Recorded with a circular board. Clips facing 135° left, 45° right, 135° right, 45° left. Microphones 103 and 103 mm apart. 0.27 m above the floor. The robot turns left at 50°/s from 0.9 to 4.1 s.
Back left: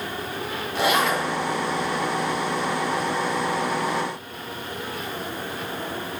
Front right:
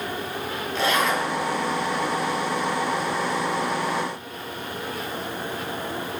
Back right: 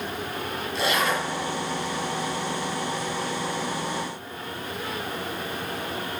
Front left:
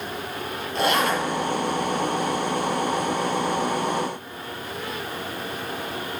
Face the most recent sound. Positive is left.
turn(degrees=-100)